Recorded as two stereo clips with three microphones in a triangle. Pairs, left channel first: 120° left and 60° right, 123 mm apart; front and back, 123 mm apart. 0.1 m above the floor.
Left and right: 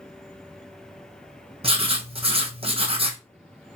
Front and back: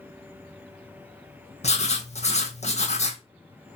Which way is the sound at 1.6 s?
20° right.